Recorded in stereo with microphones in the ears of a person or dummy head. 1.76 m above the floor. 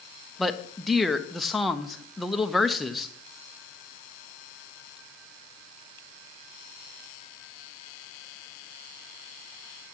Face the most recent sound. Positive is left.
turn(degrees=0)  # may be behind; listen again after turning